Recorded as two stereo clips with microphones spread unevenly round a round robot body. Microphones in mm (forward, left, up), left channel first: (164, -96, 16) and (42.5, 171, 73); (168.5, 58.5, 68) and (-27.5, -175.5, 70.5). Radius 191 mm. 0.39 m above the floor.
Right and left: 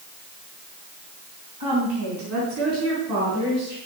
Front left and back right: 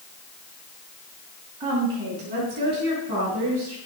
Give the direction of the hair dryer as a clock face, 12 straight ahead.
I don't hear a hair dryer.